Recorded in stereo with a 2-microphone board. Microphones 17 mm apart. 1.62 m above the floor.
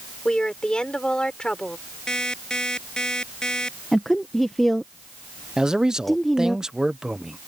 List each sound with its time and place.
0.2 s a woman speaking: 70° left (ahead or behind)
2.1 s an alarm clock: 50° left (ahead or behind)
3.9 s a woman speaking: 10° left (ahead or behind)
5.6 s a man speaking: 40° right (ahead or behind)